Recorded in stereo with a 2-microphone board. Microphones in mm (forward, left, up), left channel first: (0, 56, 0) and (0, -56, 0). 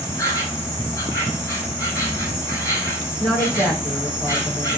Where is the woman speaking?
Centre (ahead or behind), 7.5 m.